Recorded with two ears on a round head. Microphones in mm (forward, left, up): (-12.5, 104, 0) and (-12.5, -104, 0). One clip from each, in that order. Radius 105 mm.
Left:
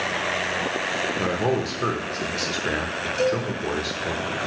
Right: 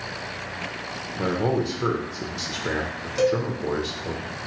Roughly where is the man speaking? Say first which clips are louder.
Left 1 dB; centre.